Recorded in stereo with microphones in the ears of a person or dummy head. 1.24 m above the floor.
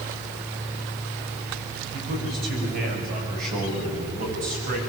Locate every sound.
1.9 s a man speaking: 60° right (ahead or behind), 7 m; by 4.8 s 50° right (ahead or behind), 9.5 m